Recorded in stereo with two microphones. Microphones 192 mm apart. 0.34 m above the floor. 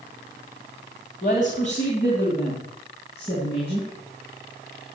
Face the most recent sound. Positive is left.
turn(degrees=30)  # may be behind; listen again after turning